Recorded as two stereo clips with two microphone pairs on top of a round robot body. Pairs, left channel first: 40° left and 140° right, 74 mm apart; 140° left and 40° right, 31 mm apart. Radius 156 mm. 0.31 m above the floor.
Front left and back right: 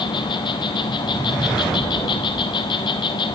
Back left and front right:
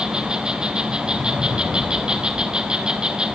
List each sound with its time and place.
0.0 s an insect: 25° left, 0.7 m